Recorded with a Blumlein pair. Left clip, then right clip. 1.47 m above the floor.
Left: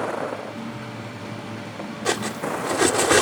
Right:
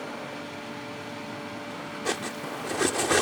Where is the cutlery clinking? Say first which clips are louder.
Left 7 dB; 15° left.